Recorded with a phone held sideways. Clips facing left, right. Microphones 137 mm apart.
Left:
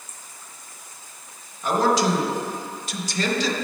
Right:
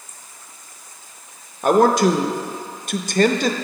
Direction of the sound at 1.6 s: 55° right (ahead or behind).